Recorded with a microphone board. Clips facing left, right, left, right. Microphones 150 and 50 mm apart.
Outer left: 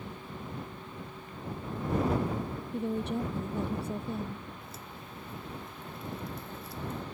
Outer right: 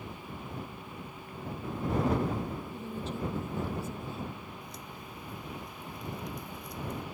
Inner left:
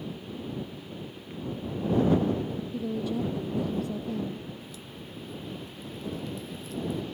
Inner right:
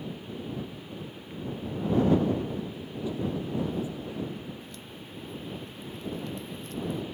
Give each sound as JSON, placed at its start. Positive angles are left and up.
{"t": 2.7, "sound": "a woman speaking", "side_deg": 65}
{"t": 4.6, "sound": "a crack", "side_deg": 5}